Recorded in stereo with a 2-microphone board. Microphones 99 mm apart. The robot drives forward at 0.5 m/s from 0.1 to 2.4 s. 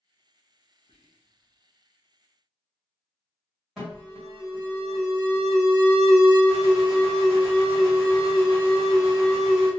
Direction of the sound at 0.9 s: 75° left (ahead or behind).